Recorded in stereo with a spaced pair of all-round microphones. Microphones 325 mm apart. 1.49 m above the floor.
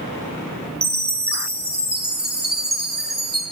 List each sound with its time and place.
0.8 s a chime: 30° right (ahead or behind), 1.1 m